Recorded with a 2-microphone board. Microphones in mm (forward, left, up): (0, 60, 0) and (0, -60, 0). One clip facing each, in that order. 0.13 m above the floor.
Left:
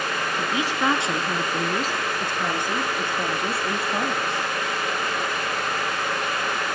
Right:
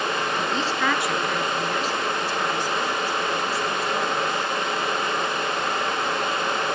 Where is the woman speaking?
5° left (ahead or behind), 1.4 m; by 4.5 s 70° left (ahead or behind), 3.5 m.